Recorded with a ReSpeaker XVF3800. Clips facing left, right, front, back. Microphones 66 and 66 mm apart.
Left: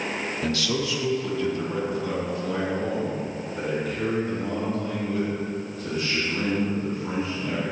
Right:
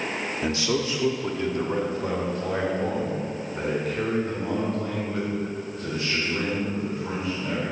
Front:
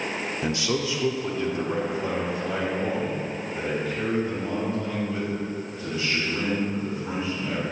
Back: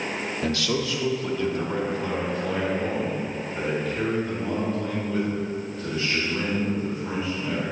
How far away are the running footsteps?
I don't hear running footsteps.